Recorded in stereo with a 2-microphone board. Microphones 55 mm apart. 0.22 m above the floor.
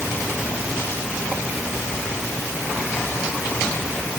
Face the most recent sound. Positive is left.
No sound to turn to.